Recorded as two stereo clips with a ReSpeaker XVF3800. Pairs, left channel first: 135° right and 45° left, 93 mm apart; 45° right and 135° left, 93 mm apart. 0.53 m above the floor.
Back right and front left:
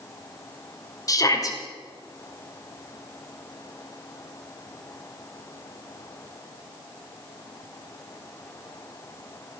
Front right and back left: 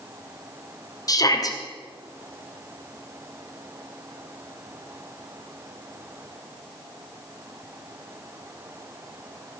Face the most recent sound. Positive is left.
turn(degrees=-90)